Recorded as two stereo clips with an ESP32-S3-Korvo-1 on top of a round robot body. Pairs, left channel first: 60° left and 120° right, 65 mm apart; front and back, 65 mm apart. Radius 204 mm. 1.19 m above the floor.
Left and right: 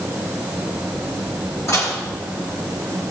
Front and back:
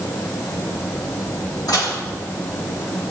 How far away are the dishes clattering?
About 9 m.